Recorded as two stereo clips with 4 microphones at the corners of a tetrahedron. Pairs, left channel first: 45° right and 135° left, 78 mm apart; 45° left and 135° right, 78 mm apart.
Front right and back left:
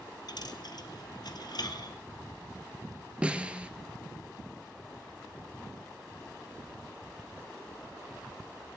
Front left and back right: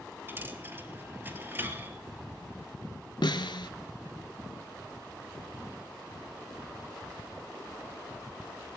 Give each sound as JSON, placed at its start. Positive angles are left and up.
{"t": 0.3, "sound": "a dropped coin", "azimuth_deg": -70, "distance_m": 1.4}
{"t": 3.2, "sound": "a snare drum", "azimuth_deg": 60, "distance_m": 1.0}